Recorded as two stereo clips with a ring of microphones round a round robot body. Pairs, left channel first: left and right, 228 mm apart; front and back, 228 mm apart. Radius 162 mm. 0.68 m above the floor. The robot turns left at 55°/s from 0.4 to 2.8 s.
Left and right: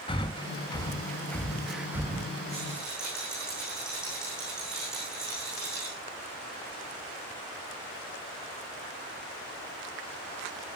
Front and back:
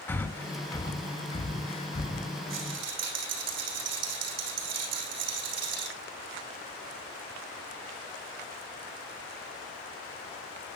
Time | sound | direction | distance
0.1 | breathing | 70° left | 1.1 m
2.5 | a rattle | 160° right | 5.5 m